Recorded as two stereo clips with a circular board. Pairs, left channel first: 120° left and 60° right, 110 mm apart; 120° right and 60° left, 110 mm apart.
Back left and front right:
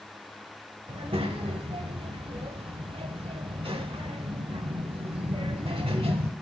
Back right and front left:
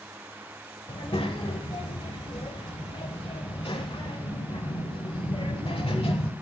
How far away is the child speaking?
About 1.0 m.